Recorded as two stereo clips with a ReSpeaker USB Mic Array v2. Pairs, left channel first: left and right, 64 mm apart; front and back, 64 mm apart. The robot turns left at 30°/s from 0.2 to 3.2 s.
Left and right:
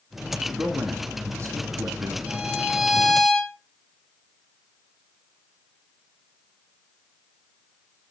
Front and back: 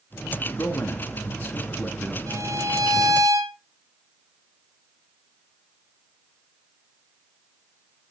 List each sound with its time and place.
0.5 s a man speaking: 30° right, 2.5 m; by 2.2 s 80° right, 2.5 m
2.3 s a violin: 160° right, 2.5 m; by 3.5 s 170° left, 2.5 m